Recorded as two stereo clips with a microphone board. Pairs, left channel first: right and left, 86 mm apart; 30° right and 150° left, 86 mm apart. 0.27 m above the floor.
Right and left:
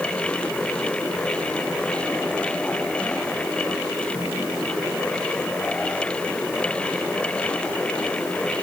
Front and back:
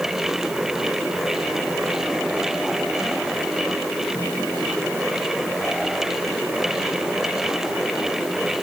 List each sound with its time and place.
Only background noise.